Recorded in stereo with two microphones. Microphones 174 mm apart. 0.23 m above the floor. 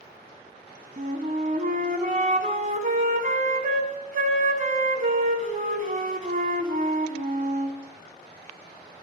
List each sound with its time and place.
1.0 s a flute: 50° right (ahead or behind), 1.1 m